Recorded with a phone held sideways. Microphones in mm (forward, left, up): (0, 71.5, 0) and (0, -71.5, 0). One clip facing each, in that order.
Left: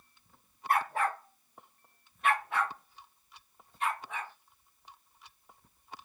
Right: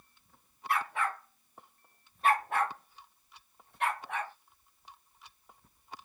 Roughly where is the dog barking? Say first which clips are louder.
Left 3 dB; left.